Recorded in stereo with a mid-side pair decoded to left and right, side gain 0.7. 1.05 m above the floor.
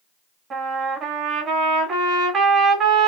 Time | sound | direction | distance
0.5 | a trumpet | 35° right | 1.3 m